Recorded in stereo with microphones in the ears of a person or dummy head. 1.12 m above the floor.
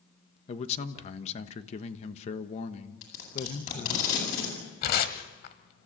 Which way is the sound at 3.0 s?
40° left (ahead or behind).